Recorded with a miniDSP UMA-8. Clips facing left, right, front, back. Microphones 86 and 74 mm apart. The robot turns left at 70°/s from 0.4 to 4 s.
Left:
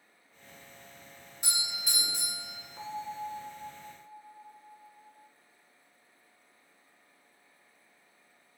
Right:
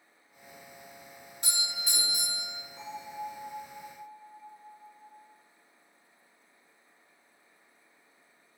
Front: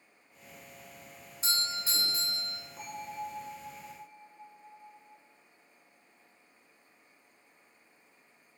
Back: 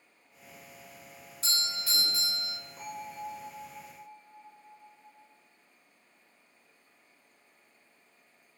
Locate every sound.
1.4 s a doorbell: 25° left, 1.5 m; by 2.6 s 55° right, 1.5 m
2.8 s a bell: 75° left, 0.6 m; by 5.2 s 15° right, 0.6 m